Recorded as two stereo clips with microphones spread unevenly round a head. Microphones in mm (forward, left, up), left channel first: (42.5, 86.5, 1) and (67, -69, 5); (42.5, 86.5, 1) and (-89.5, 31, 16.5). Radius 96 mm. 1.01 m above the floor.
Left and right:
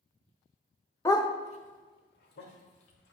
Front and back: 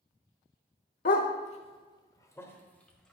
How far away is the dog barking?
About 0.9 m.